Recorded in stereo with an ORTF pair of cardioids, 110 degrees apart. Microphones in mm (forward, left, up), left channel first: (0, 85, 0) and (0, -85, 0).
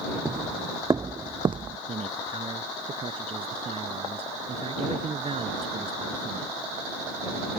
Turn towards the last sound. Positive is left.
turn(degrees=-35)